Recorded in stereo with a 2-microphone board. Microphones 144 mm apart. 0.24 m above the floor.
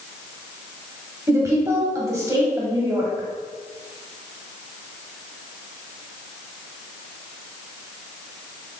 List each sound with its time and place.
1.3 s a woman speaking: 20° right (ahead or behind), 0.9 m